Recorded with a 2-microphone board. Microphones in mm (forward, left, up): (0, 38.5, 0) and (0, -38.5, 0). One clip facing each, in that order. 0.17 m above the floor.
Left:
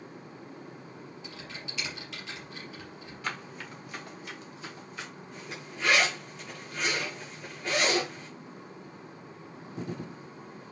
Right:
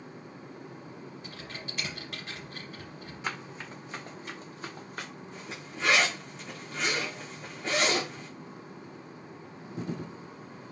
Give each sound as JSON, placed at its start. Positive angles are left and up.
{"t": 1.2, "sound": "typing on a keyboard", "side_deg": -45, "distance_m": 4.5}
{"t": 3.2, "sound": "running footsteps", "side_deg": -20, "distance_m": 4.5}
{"t": 5.3, "sound": "a zipper", "side_deg": -30, "distance_m": 6.0}